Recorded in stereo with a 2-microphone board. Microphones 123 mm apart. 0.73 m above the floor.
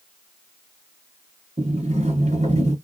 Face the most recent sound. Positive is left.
turn(degrees=-65)  # may be behind; listen again after turning